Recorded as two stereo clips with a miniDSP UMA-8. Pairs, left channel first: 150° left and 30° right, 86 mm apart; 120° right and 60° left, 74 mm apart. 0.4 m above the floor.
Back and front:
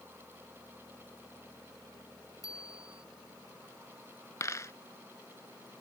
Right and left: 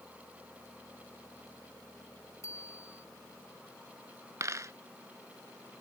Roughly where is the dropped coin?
Left.